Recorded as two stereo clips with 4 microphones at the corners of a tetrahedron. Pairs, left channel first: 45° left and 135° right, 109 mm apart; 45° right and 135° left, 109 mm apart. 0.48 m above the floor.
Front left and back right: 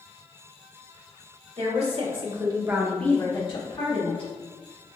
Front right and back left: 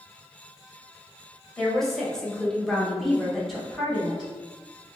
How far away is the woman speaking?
About 1.7 m.